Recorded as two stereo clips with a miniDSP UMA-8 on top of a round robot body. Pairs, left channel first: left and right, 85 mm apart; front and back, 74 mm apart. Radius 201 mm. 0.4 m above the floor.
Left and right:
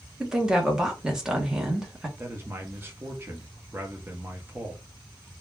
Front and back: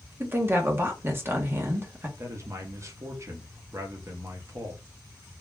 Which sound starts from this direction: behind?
A woman speaking, at 0.2 s.